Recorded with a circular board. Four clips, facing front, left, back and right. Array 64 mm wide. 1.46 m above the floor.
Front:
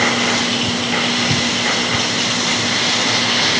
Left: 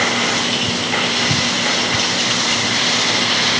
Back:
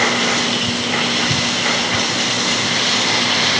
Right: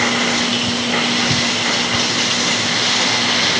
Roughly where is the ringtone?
No ringtone in this recording.